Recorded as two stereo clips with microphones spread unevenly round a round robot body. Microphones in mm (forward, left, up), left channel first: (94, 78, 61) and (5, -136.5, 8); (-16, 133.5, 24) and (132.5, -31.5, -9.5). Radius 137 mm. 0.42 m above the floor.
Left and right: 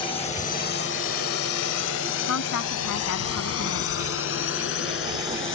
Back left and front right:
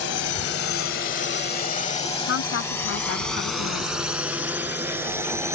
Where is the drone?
145° left; by 5.5 s 30° left.